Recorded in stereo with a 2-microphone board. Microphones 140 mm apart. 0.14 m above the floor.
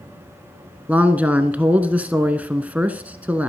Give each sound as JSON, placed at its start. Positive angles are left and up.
{"t": 0.9, "sound": "a man speaking", "side_deg": -10, "distance_m": 1.2}